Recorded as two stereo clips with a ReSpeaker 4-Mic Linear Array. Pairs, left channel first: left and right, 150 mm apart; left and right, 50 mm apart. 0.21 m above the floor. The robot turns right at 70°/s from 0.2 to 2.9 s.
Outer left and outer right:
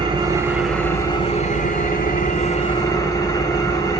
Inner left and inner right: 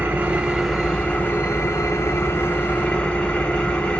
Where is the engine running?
30° right, 1.6 m; by 4.0 s 155° left, 1.6 m.